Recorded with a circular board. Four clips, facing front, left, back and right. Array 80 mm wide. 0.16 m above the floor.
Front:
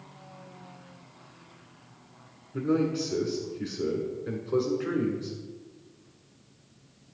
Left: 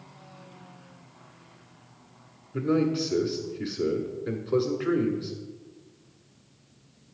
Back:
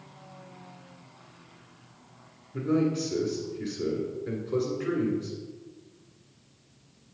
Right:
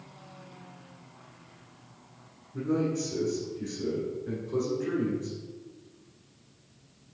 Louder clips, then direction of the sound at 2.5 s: Left 4 dB, even; 80° left.